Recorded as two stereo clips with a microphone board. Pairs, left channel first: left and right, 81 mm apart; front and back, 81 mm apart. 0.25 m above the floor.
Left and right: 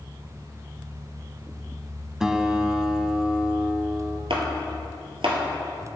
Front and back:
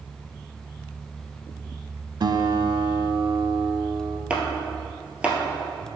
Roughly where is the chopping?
Right.